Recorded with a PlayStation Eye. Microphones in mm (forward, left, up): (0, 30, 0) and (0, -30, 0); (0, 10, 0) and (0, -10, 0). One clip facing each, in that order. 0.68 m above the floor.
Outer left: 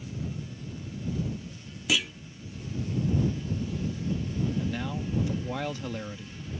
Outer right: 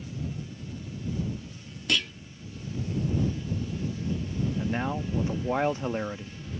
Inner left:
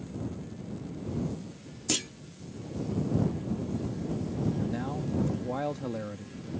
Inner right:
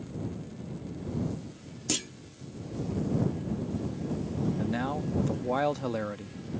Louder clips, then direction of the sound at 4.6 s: Outer right 3 dB, inner right 2 dB; 30° right (ahead or behind).